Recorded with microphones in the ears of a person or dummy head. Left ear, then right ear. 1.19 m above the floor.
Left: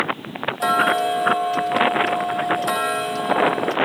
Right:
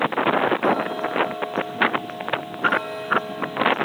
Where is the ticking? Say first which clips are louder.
Left 4 dB; 60° left (ahead or behind), 0.9 m.